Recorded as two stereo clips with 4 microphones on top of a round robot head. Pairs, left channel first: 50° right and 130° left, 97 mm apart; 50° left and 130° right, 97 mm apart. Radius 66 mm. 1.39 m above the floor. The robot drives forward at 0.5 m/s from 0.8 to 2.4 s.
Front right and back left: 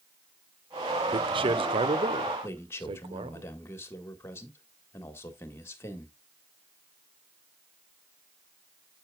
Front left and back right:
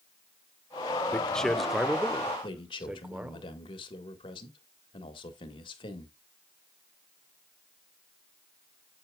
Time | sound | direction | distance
1.1 | a man speaking | 125° left | 0.7 m
2.4 | a man speaking | 15° left | 1.7 m